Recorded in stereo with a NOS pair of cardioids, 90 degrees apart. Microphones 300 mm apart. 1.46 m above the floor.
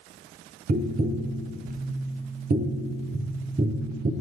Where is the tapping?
30° right, 0.5 m.